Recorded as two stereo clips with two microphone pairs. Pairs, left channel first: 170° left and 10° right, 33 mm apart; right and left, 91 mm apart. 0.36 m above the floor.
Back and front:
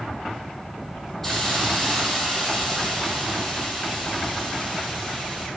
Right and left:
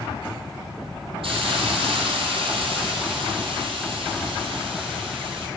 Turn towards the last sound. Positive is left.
turn(degrees=90)